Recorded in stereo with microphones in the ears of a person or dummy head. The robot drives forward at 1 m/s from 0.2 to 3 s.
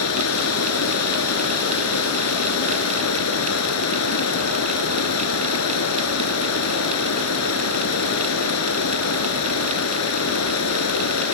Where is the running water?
80° left; by 11.3 s 85° left.